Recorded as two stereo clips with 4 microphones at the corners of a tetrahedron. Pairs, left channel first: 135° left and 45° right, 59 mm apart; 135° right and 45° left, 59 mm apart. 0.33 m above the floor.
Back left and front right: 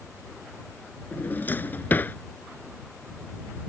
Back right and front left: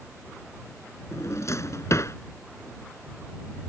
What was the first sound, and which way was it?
A drawer, 170° right.